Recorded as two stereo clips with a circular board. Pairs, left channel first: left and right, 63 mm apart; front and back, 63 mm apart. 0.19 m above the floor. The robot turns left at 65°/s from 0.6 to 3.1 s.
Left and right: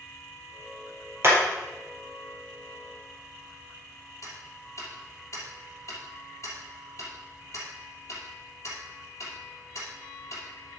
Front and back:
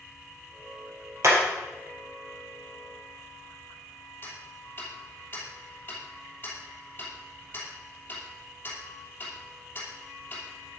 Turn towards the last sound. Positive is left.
turn(degrees=55)